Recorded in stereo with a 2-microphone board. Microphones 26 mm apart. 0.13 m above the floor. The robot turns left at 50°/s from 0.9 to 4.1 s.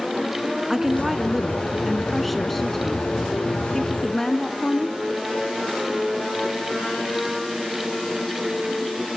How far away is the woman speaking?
About 1.1 m.